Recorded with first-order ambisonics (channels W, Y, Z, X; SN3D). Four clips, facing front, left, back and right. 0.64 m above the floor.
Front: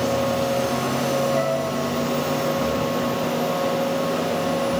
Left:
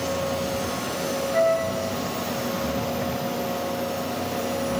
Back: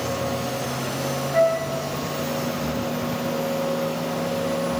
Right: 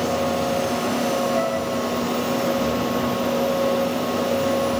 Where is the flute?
140° left, 9 m.